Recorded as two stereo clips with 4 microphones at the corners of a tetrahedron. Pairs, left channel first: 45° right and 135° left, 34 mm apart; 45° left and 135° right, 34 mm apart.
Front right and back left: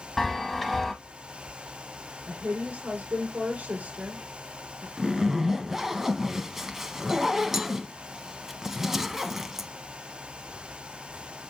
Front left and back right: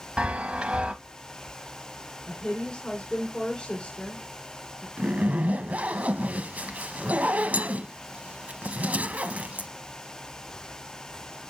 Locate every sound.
0.2 s a chime: 125° right, 0.9 m
2.3 s a woman speaking: 105° left, 2.5 m
5.0 s a zipper: 150° right, 0.7 m